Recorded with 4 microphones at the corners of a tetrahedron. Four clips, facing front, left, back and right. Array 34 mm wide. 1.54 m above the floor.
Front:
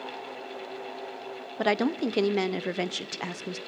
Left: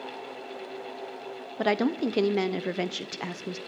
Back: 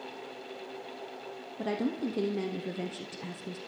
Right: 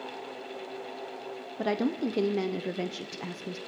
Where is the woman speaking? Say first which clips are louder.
Left 3 dB, front 6 dB; 35° left, 0.6 m.